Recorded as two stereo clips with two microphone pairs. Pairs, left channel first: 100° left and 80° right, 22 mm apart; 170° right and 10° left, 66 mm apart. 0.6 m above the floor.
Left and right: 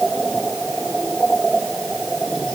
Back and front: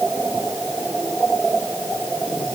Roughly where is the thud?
I don't hear a thud.